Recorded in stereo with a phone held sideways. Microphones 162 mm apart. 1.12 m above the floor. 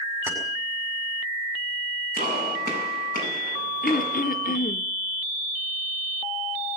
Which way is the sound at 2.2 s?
75° right (ahead or behind).